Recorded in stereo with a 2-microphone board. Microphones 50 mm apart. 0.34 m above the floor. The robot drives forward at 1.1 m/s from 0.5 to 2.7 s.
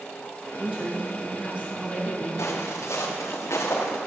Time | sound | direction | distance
0.6 | a woman speaking | 25° right (ahead or behind) | 5.5 m
2.4 | footsteps | 85° left | 3.5 m